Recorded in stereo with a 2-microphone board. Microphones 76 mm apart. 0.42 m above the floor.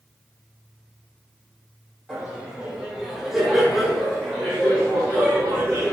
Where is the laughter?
10° right (ahead or behind), 1.2 m; by 5.9 s 10° left (ahead or behind), 1.5 m.